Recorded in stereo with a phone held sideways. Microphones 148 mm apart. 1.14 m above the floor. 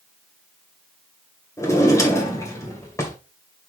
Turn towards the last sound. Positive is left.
turn(degrees=20)  # may be behind; listen again after turning